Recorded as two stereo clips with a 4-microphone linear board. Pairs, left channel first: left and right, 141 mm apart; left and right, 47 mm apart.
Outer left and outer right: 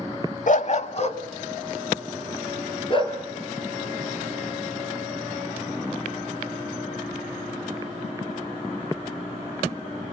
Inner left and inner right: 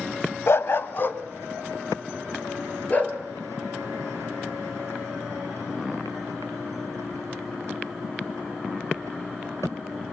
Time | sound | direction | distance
0.5 | a dog barking | 65° left (ahead or behind) | 0.9 m